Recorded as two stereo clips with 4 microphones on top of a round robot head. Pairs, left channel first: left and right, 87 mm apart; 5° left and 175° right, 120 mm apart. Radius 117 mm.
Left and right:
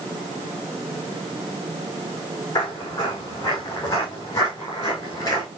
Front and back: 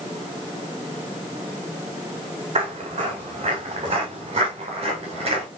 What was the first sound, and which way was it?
Footsteps, 145° left.